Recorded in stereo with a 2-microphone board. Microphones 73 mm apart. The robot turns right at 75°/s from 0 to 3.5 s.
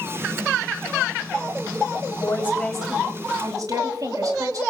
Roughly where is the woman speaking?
Behind left.